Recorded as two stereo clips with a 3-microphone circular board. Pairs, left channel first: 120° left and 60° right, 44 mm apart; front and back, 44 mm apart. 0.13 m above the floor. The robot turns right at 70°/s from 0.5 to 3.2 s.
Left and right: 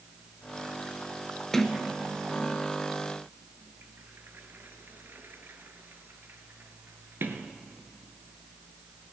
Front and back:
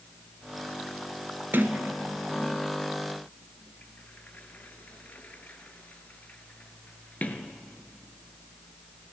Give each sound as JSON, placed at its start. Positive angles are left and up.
{"t": 1.5, "sound": "a sliding door", "azimuth_deg": -160, "distance_m": 0.8}